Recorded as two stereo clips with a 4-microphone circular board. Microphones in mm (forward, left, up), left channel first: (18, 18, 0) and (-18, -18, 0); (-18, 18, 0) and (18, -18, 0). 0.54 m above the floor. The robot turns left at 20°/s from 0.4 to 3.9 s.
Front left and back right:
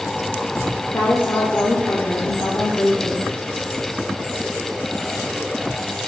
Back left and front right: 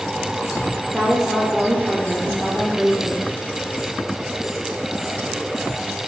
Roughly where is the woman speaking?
Ahead left.